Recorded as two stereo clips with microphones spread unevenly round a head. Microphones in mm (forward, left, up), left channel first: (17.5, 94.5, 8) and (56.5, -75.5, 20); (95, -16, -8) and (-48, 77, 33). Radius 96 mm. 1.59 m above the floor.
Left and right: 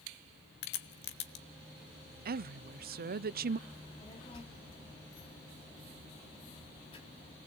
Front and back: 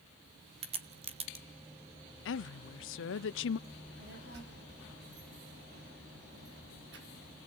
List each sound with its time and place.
0.6 s a crack: 115° left, 1.4 m
2.2 s a woman speaking: 40° right, 0.6 m
3.7 s a child speaking: 170° left, 2.5 m